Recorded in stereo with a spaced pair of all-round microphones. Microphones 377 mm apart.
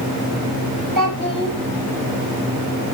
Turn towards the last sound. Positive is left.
turn(degrees=-60)  # may be behind; listen again after turning